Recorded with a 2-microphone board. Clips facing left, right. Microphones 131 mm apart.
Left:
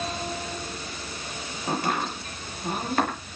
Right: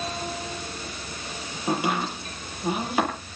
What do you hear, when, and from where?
1.7 s chopping: 10° right (ahead or behind), 7.5 m